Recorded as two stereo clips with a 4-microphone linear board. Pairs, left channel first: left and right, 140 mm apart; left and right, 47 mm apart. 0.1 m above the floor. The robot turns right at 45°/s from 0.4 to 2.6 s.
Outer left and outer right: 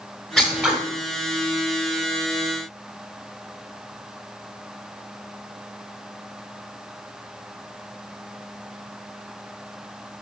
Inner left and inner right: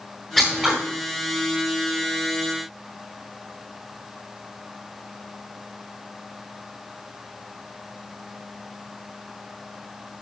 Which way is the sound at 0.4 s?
Centre (ahead or behind).